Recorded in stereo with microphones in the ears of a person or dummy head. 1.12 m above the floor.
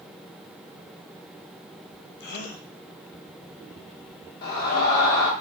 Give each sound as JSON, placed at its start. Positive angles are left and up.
{"t": 2.2, "sound": "a gasp", "side_deg": 45, "distance_m": 0.6}
{"t": 4.4, "sound": "a scream", "side_deg": 50, "distance_m": 1.3}